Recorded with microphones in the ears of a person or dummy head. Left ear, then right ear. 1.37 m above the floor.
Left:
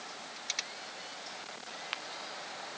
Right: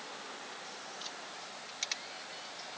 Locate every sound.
Only background noise.